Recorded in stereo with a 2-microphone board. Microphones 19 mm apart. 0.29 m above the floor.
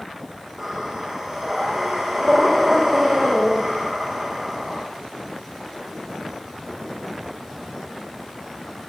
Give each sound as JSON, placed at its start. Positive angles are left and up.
{"t": 0.6, "sound": "breathing", "side_deg": -20, "distance_m": 8.0}